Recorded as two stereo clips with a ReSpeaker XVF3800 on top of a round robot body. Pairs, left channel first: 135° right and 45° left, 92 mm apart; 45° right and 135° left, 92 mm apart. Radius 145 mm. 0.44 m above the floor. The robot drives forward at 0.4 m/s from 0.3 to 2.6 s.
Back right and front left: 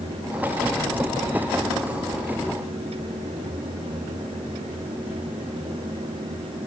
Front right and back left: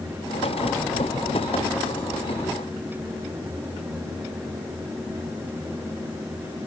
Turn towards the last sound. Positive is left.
No sound to turn to.